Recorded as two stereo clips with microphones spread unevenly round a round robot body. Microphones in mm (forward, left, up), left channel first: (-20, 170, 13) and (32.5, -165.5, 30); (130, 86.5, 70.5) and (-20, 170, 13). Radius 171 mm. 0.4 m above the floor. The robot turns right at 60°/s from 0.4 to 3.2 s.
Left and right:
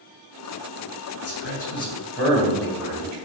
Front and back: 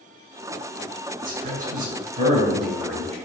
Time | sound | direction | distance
1.2 | a man speaking | 140° left | 1.8 m